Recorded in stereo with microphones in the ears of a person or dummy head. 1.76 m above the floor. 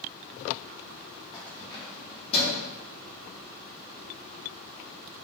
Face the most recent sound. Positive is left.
turn(degrees=35)  # may be behind; listen again after turning